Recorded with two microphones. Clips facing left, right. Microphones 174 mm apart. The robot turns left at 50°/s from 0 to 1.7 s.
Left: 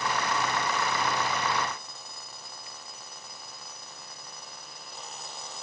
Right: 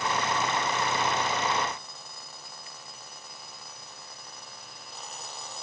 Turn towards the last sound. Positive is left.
No sound to turn to.